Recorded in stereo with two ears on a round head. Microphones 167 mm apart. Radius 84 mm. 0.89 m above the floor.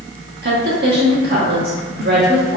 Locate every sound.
0.4 s a woman speaking: 60° right (ahead or behind), 1.6 m